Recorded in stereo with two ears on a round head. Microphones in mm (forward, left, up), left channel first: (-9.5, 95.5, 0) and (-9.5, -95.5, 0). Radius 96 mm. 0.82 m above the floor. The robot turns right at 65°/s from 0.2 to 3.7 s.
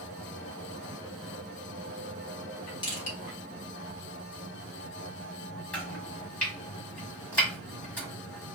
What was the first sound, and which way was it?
Crushing, 25° left (ahead or behind).